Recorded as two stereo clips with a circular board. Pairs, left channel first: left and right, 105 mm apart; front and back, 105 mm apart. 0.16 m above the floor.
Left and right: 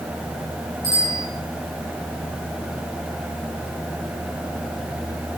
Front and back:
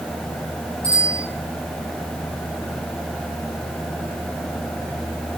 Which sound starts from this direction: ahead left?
A bicycle bell, at 0.8 s.